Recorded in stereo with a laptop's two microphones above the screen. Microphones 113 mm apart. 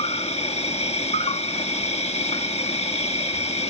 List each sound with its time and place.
0.0 s an insect: 65° left (ahead or behind)